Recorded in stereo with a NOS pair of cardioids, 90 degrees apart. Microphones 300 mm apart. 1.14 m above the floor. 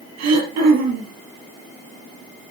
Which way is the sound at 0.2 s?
70° right.